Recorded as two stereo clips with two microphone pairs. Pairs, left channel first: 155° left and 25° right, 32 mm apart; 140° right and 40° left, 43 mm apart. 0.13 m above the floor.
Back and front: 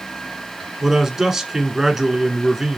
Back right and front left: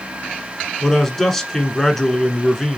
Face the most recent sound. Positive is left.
turn(degrees=-75)